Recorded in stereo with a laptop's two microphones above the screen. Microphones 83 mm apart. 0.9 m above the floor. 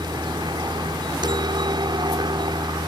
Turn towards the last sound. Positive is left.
turn(degrees=-65)  # may be behind; listen again after turning